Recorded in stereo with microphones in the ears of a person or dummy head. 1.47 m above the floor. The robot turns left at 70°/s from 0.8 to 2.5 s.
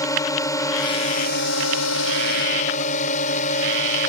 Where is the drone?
160° left; by 4.1 s 45° left.